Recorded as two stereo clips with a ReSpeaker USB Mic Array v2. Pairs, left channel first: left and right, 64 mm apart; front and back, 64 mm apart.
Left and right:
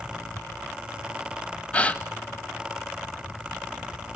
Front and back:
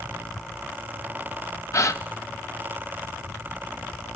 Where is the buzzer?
I don't hear a buzzer.